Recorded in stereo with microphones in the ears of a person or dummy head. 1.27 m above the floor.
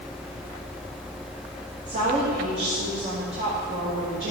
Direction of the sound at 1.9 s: 35° right (ahead or behind).